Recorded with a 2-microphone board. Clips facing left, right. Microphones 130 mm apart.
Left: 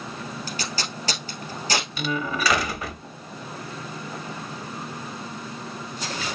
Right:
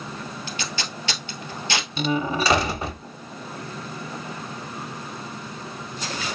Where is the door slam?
25° right (ahead or behind), 0.6 m.